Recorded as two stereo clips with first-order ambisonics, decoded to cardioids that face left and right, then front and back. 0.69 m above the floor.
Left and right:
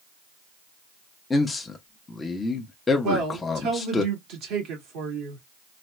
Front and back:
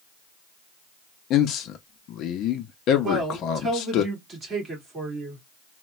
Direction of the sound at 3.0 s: 115° right.